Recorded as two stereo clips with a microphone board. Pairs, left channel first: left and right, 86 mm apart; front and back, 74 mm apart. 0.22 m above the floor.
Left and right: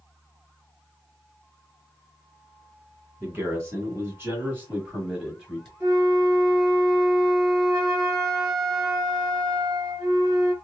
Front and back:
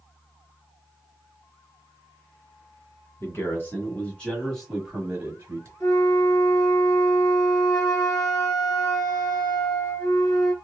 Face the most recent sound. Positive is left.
turn(degrees=-45)